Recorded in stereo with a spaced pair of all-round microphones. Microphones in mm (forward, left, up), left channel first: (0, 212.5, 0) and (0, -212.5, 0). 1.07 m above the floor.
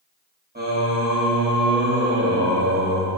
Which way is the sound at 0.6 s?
20° right (ahead or behind).